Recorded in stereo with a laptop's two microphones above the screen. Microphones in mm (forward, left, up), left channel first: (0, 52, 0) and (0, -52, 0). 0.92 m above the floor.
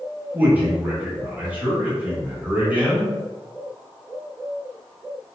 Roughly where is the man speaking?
Centre.